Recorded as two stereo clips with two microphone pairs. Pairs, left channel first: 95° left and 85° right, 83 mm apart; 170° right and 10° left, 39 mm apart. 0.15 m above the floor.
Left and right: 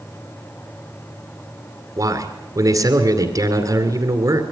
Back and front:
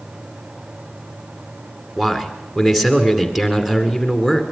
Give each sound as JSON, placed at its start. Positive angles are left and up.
{"t": 2.0, "sound": "a man speaking", "azimuth_deg": -70, "distance_m": 2.0}